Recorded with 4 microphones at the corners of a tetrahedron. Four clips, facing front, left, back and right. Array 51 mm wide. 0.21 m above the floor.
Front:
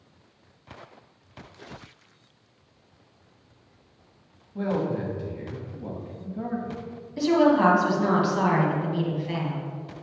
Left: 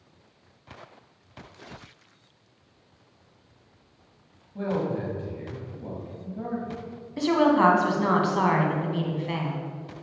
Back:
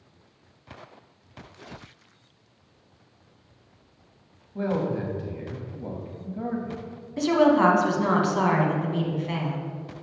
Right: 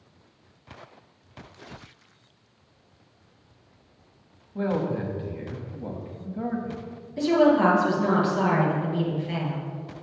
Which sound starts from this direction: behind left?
A woman speaking, at 7.2 s.